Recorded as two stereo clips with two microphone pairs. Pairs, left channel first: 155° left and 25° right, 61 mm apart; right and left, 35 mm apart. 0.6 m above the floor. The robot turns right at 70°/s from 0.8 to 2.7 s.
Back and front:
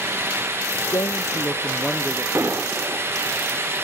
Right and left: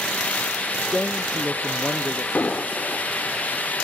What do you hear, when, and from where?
0.8 s a man speaking: 165° left; by 2.2 s 90° right
2.4 s an explosion: 65° right; by 3.1 s 40° right